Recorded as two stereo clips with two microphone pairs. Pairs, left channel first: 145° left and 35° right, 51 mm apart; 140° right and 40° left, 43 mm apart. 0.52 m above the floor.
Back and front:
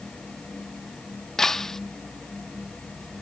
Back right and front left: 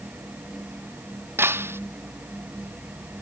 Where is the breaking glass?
65° left.